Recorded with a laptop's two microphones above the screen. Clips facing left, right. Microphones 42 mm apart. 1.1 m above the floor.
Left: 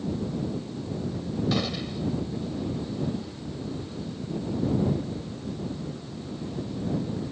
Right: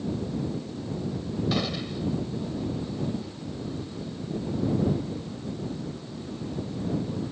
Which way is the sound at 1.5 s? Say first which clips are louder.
Even; centre (ahead or behind).